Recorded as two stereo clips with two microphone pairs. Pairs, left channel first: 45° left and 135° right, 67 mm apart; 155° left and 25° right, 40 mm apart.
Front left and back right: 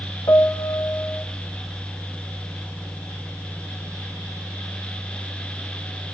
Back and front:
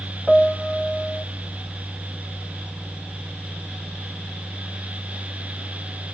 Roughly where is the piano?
Ahead left.